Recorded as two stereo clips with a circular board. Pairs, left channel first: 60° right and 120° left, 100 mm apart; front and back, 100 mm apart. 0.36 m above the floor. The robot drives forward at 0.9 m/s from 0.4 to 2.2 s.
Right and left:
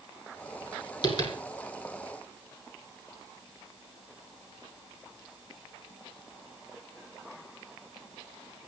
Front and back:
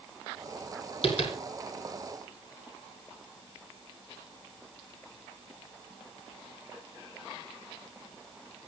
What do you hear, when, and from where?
1.0 s tapping: 15° right, 5.5 m